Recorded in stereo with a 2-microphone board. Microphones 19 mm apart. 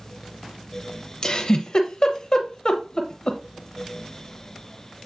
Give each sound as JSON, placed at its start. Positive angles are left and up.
{"t": 1.2, "sound": "a giggle", "side_deg": 40, "distance_m": 0.8}